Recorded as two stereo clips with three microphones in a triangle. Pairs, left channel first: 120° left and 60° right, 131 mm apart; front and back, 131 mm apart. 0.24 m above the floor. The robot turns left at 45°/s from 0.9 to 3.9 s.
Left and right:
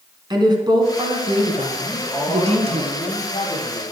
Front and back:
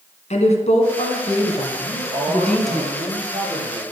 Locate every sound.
0.3 s a woman speaking: 10° right, 3 m; by 2.8 s 95° right, 3 m
1.8 s a man speaking: 140° right, 6.5 m; by 3.8 s 130° left, 6.5 m